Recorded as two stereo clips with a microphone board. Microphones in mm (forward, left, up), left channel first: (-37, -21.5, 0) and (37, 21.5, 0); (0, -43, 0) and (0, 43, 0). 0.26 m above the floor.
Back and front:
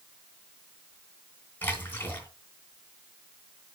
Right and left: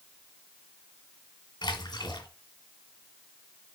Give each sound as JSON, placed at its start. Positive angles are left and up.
{"t": 1.6, "sound": "a splash", "azimuth_deg": -85, "distance_m": 2.5}